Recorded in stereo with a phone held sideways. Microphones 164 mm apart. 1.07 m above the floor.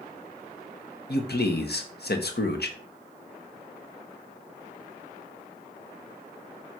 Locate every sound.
1.1 s a man speaking: 75° left (ahead or behind), 1.2 m